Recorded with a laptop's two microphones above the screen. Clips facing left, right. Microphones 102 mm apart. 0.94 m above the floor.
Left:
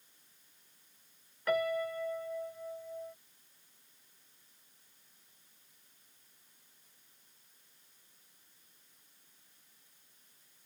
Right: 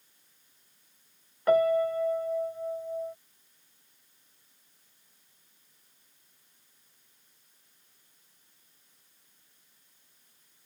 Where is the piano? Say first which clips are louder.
Right 9 dB; 35° right (ahead or behind).